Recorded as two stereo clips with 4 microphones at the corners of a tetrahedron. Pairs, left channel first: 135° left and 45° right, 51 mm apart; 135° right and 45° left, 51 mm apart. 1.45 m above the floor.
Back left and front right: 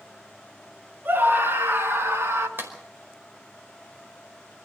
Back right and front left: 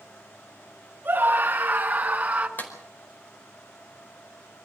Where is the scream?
Straight ahead, 3 m; by 2.5 s 20° right, 3 m.